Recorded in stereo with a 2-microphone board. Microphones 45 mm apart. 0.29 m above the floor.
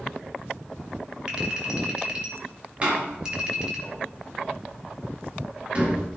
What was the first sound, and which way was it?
A clink, 25° right (ahead or behind).